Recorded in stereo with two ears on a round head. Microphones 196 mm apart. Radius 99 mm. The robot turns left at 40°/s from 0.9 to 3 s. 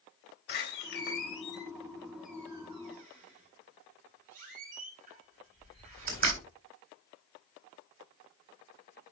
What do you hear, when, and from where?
0.5 s a door slam: 45° left (ahead or behind), 1.9 m; by 6.4 s 35° right (ahead or behind), 1.9 m